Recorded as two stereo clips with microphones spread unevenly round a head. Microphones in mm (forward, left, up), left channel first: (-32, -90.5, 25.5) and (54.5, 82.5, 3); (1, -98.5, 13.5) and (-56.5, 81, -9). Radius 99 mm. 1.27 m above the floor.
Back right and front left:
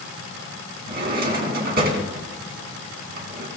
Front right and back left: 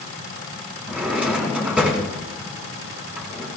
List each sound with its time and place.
0.9 s a drawer: 20° left, 3 m